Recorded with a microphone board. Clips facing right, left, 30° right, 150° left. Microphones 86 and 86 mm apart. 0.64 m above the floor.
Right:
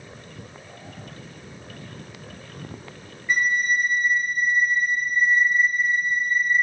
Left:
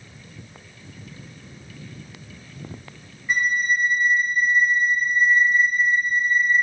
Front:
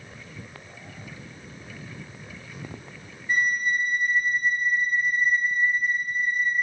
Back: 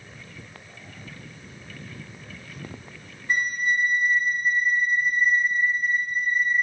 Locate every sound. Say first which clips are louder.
3.3 s a flute: even, even; 175° left, 0.7 m